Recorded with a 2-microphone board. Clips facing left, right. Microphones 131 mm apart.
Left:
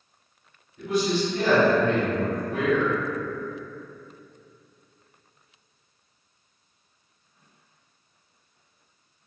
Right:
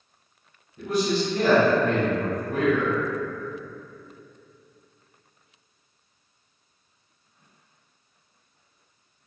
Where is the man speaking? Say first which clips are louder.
Even; 40° right (ahead or behind), 1.5 m.